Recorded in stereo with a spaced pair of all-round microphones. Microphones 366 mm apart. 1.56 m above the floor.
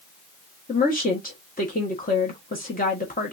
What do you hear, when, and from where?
0.7 s a woman speaking: 20° left (ahead or behind), 1.2 m